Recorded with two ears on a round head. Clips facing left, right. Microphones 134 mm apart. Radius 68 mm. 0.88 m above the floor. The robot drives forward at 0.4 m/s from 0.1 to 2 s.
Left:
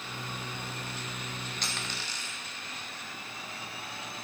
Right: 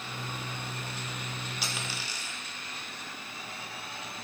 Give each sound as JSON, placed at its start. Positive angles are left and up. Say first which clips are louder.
{"t": 1.6, "sound": "a dropped coin", "louder": "right 1 dB", "side_deg": -5, "distance_m": 0.8}